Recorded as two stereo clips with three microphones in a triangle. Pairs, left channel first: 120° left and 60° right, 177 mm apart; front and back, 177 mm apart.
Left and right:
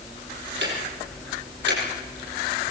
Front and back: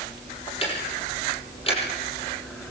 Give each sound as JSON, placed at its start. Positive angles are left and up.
{"t": 0.6, "sound": "ticking", "azimuth_deg": -60, "distance_m": 6.0}